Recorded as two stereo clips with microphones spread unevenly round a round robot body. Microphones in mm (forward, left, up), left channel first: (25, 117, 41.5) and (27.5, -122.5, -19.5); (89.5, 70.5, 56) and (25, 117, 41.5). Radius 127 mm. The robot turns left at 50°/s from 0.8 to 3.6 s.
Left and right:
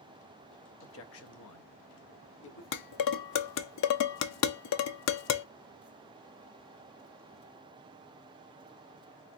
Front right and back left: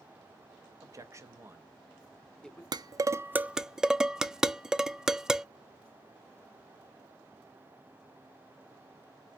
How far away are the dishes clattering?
About 0.5 m.